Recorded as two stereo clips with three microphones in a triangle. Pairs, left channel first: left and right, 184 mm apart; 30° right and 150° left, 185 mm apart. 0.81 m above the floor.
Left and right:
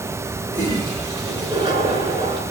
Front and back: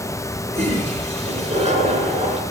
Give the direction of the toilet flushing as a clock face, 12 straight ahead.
5 o'clock.